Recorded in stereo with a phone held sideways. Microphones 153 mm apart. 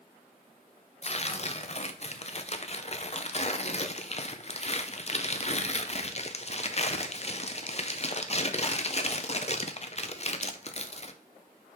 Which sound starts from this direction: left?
Tearing paper, at 1.0 s.